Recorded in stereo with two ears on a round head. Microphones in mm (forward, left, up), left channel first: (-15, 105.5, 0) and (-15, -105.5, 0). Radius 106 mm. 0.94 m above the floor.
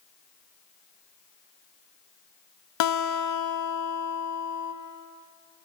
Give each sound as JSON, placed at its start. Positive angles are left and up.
{"t": 2.8, "sound": "a guitar", "side_deg": 85, "distance_m": 0.5}